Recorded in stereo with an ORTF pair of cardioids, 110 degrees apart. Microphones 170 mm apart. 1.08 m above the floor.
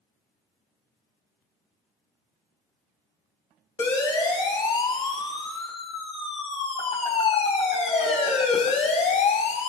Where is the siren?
25° left, 6.5 m; by 9.7 s 55° left, 5 m.